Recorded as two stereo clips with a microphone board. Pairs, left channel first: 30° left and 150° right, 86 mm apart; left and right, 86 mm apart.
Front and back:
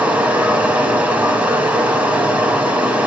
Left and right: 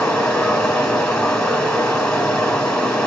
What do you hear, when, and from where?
0.0 s running water: 160° left, 1.4 m